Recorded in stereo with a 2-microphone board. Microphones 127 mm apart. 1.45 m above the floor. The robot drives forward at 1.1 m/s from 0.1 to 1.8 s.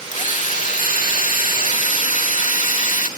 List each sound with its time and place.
0.1 s a drill: 70° left (ahead or behind)